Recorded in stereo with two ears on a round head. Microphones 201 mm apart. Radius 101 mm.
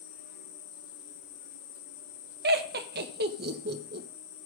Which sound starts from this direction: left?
An insect, at 0.0 s.